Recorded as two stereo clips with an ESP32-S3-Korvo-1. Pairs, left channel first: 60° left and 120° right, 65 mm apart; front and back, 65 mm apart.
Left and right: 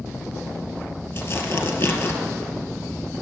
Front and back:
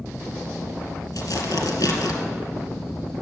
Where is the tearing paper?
20° left, 1.9 m.